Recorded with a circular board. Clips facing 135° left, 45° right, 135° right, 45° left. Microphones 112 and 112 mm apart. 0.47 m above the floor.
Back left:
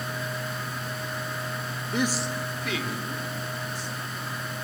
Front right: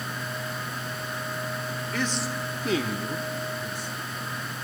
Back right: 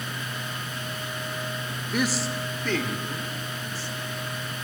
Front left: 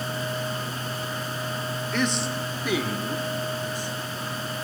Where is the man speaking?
160° left, 0.7 m; by 3.9 s 25° right, 1.9 m.